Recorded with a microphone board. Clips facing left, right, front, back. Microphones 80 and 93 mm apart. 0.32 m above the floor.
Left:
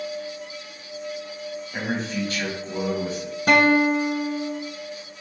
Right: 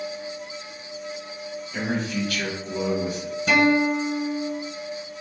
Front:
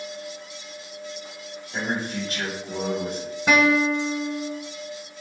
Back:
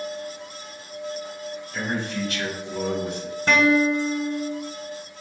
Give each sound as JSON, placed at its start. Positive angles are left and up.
{"t": 1.7, "sound": "a man speaking", "azimuth_deg": 45, "distance_m": 1.7}
{"t": 3.5, "sound": "a guitar", "azimuth_deg": 80, "distance_m": 0.6}